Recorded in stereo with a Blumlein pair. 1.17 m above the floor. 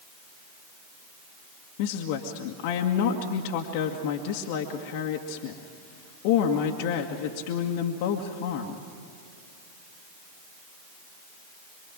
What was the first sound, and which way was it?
A woman speaking, 45° left.